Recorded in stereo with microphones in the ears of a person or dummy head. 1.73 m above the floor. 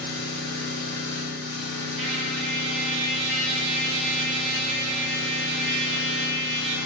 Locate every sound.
0.0 s an engine running: 50° right (ahead or behind), 8 m
2.0 s a trumpet: 70° right (ahead or behind), 9 m